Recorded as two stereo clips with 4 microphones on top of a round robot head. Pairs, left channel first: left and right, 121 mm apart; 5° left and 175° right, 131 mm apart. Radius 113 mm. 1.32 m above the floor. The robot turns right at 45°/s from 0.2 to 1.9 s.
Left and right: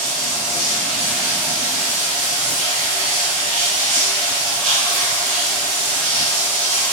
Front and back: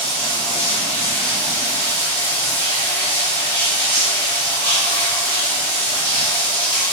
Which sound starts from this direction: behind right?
Running water, at 0.0 s.